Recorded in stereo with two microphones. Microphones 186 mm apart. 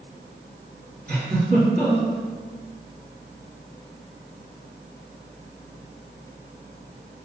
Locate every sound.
1.1 s a giggle: 55° right (ahead or behind), 1.8 m